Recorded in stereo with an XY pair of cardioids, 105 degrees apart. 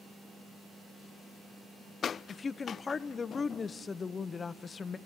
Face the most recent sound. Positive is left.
turn(degrees=35)